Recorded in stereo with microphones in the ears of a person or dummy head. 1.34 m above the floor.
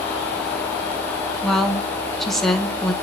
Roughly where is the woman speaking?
Centre.